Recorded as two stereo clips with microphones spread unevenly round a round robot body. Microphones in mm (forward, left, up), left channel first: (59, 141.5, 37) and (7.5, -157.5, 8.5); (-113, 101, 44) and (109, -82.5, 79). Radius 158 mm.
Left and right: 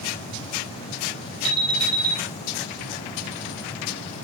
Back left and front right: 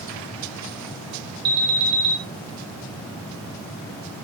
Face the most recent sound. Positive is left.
turn(degrees=-70)